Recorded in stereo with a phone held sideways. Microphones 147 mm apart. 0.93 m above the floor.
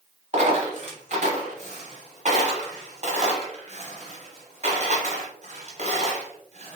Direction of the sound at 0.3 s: 50° right (ahead or behind).